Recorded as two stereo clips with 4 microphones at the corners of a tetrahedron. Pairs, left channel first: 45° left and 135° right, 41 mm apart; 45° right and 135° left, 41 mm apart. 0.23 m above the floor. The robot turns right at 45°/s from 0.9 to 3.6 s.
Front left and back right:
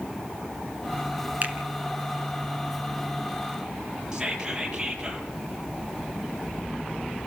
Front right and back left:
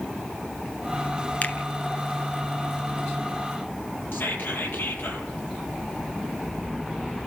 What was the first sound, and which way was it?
A finger snap, 90° right.